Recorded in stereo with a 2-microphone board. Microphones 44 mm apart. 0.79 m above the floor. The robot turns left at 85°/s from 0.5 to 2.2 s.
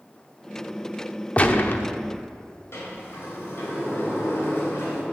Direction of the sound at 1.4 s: 150° left.